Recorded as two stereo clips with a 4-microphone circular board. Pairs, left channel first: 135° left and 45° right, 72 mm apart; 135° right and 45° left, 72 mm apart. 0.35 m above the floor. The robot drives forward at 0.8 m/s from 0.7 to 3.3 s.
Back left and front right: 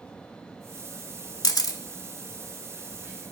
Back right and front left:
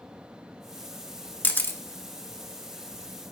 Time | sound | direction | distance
1.4 | a camera shutter | 165° left | 0.9 m